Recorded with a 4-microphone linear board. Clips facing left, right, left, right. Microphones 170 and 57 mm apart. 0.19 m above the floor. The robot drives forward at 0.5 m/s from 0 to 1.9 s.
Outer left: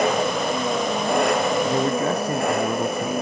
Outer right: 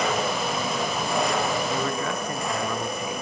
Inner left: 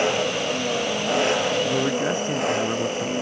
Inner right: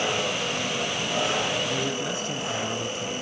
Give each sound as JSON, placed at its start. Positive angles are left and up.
{"t": 0.0, "sound": "an engine running", "side_deg": 55, "distance_m": 4.5}
{"t": 1.6, "sound": "a man speaking", "side_deg": 35, "distance_m": 1.4}